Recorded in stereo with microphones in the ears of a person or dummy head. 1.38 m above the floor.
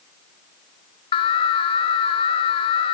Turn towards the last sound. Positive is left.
turn(degrees=35)  # may be behind; listen again after turning